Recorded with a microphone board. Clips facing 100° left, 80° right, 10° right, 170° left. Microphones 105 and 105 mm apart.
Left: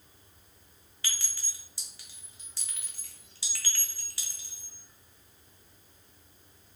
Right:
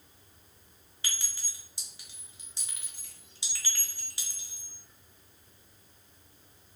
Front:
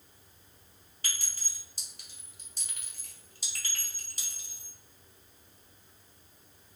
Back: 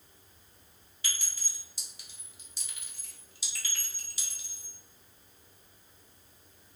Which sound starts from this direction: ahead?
A clink, at 1.0 s.